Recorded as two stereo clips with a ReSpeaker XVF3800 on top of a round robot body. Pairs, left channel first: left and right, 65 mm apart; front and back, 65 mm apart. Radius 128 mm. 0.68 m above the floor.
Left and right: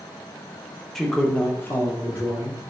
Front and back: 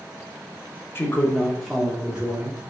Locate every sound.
0.9 s a man speaking: 10° left, 0.8 m; by 2.7 s 125° left, 1.1 m